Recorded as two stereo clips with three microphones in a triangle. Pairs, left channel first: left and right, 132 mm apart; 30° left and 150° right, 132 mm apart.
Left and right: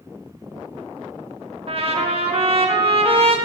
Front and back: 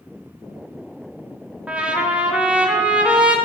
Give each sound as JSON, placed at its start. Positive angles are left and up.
{"t": 1.7, "sound": "a trumpet", "azimuth_deg": -70, "distance_m": 0.9}